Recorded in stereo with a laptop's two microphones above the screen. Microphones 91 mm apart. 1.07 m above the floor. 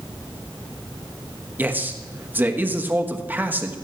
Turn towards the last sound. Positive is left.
turn(degrees=-20)  # may be behind; listen again after turning